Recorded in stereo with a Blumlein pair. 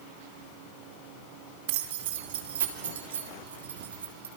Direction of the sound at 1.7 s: 50° right.